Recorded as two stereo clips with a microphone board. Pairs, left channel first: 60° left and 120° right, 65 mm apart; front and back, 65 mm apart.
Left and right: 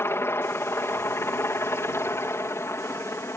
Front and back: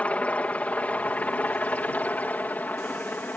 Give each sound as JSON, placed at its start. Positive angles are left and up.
{"t": 0.0, "sound": "a helicopter", "azimuth_deg": 55}